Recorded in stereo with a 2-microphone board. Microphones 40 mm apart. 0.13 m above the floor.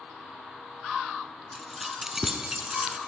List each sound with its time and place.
1.5 s keys jangling: 5° left (ahead or behind), 0.9 m; by 3.0 s 20° right (ahead or behind), 1.0 m